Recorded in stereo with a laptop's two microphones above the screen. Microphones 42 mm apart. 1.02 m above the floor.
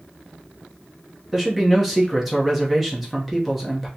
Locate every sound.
1.3 s a man speaking: centre (ahead or behind), 0.9 m